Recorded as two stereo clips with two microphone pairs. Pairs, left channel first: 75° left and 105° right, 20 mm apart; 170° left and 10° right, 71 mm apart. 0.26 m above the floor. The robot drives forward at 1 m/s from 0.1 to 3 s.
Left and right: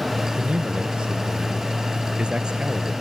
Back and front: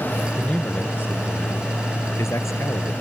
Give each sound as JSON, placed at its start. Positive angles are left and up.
{"t": 0.4, "sound": "a man speaking", "azimuth_deg": -120}